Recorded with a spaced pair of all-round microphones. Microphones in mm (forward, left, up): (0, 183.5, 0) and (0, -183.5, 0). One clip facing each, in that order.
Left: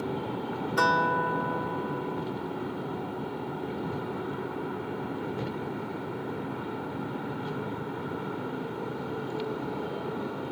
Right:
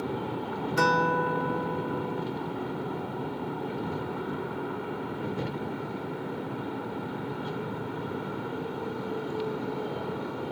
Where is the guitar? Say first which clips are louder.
Right 3 dB; 40° right (ahead or behind), 0.5 m.